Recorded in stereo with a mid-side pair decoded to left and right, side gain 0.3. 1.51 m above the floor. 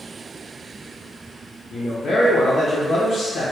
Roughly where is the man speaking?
Left.